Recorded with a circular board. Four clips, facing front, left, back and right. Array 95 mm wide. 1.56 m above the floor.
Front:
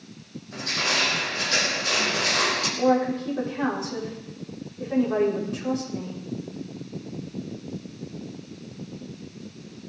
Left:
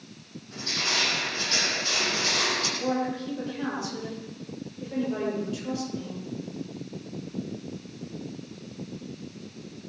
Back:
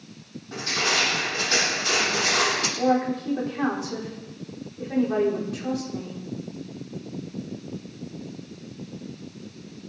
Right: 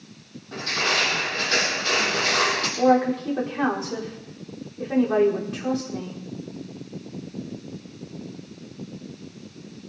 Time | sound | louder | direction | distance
0.5 | crushing | right 6 dB, back 2 dB | 140° right | 9 m
2.8 | a woman speaking | right 11 dB, front 1 dB | 100° right | 4.5 m